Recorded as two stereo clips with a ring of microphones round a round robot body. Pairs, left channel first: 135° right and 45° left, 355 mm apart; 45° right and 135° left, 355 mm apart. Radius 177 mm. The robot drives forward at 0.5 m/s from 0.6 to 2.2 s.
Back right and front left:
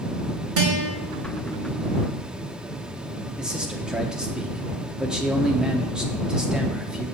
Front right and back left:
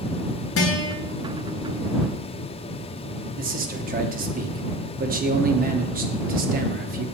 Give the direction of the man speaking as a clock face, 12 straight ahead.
8 o'clock.